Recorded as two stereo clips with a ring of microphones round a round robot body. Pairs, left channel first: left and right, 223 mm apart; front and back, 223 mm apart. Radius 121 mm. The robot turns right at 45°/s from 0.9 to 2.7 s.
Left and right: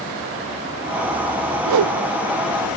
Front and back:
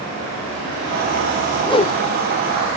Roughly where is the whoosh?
Right.